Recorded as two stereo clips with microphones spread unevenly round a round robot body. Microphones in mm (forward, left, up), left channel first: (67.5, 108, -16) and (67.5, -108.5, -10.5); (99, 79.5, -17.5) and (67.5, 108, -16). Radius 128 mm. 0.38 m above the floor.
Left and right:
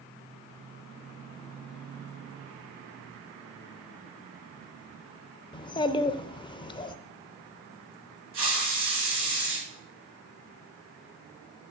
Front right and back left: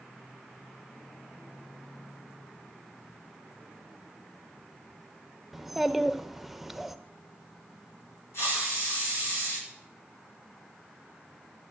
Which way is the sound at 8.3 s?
65° right.